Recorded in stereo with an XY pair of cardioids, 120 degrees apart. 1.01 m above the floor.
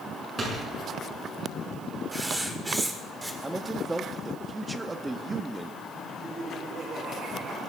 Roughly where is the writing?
Ahead.